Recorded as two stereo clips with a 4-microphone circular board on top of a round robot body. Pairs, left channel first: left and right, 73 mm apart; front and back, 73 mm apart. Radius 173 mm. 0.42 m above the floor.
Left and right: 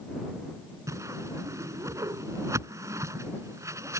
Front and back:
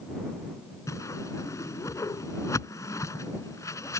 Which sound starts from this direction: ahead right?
A whoosh, at 0.9 s.